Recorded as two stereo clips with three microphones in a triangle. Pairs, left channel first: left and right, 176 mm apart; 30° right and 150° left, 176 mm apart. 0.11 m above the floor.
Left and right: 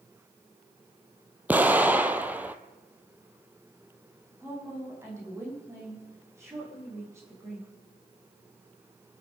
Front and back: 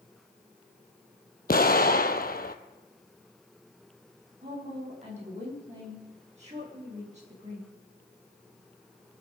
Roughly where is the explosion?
Ahead.